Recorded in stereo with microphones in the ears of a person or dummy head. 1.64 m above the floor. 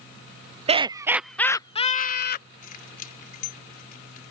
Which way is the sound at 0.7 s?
30° right (ahead or behind).